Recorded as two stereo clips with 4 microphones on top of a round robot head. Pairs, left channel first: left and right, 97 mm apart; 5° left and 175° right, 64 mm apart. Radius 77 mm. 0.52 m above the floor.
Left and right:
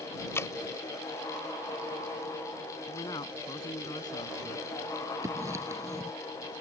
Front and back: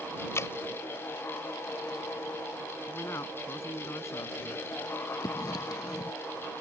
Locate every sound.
0.3 s dripping: 35° left
2.9 s a man speaking: 45° left
5.2 s writing: 30° right